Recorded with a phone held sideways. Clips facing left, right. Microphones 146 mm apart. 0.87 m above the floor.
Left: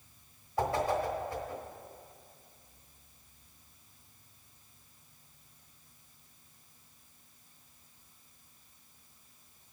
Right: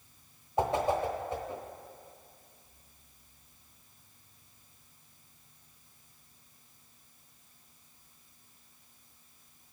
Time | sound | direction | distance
0.6 | a whoosh | 25° right (ahead or behind) | 1.2 m